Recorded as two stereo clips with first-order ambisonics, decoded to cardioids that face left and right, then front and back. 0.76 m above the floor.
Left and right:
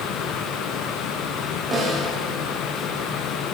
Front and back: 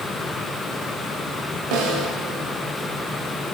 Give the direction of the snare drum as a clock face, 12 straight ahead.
6 o'clock.